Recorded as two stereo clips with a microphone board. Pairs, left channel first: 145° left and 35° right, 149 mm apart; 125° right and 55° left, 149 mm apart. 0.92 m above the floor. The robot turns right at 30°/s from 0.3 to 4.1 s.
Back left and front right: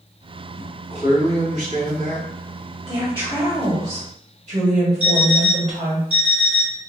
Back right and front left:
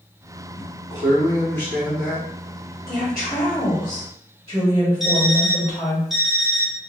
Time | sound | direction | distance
0.6 | a man speaking | 85° right | 1.5 m
2.9 | a woman speaking | 100° right | 1.3 m
5.0 | an alarm clock | 145° left | 1.1 m